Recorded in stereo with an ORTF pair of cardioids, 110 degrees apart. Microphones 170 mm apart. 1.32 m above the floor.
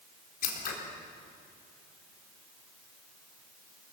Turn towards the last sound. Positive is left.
turn(degrees=60)